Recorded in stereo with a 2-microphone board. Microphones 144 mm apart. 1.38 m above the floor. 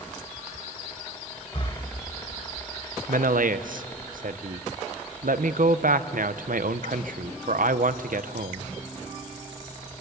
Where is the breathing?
45° left (ahead or behind), 2.5 m.